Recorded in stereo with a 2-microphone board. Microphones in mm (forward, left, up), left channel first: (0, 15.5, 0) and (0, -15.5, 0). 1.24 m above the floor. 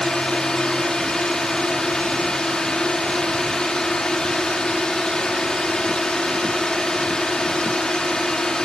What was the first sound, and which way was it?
A drone, 25° left (ahead or behind).